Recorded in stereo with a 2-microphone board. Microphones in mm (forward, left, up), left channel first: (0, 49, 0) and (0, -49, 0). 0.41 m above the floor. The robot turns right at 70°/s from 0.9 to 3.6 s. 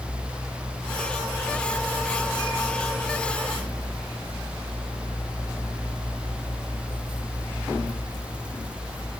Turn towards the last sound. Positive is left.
No sound to turn to.